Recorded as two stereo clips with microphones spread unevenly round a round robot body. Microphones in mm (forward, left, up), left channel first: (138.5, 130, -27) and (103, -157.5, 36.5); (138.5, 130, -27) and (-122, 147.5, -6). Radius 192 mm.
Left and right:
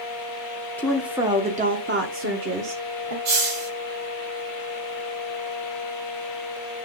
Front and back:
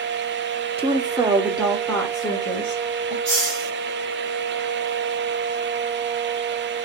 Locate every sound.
0.8 s a woman speaking: 125° left, 1.2 m; by 3.1 s 65° right, 1.8 m
3.2 s a hiss: 110° right, 6 m